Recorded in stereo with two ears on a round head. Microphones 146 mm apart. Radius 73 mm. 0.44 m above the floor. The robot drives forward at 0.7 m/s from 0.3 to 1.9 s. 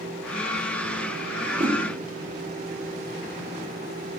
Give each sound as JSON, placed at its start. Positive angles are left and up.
{"t": 1.4, "sound": "a whoosh", "side_deg": -35, "distance_m": 1.3}